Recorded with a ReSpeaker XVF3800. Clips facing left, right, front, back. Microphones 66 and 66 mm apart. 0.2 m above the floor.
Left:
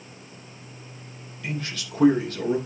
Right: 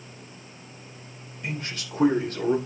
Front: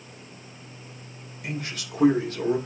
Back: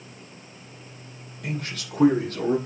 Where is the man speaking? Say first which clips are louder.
Left 1 dB, back 1 dB; 155° right, 5.5 m; by 2.6 s 145° right, 6 m.